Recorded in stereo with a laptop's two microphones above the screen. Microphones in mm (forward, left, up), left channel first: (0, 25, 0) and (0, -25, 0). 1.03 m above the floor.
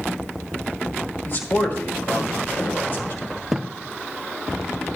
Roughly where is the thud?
Centre.